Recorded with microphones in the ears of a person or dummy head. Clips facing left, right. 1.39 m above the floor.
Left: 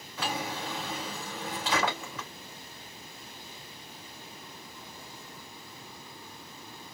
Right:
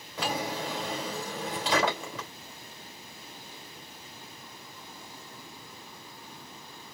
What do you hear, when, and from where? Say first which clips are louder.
0.2 s a drawer: right 2 dB; 25° right (ahead or behind), 3 m